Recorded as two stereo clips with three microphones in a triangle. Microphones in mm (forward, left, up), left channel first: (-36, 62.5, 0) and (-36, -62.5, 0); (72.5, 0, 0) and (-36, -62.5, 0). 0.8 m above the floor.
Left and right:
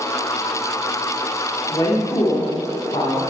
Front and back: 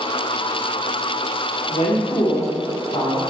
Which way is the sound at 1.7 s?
35° left.